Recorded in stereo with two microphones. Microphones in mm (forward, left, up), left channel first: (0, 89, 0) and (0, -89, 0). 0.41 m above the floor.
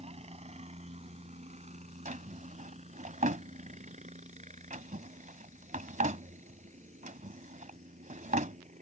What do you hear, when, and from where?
0.0 s a helicopter: 35° right (ahead or behind); by 8.8 s 40° right (ahead or behind)
2.0 s a drawer: 45° right (ahead or behind)